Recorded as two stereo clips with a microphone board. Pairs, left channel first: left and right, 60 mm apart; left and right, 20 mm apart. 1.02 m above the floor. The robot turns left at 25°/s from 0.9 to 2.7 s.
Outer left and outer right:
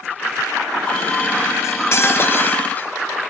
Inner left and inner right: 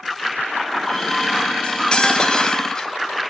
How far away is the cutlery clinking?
About 2.5 m.